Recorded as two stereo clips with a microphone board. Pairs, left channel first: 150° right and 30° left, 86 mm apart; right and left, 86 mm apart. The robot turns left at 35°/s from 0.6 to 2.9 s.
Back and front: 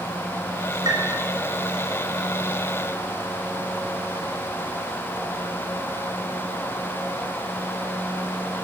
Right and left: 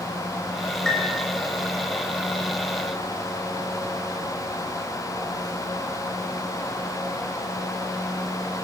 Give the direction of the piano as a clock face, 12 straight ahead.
12 o'clock.